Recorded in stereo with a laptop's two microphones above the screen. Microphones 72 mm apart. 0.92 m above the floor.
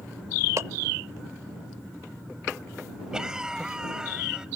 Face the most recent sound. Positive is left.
turn(degrees=-10)  # may be behind; listen again after turning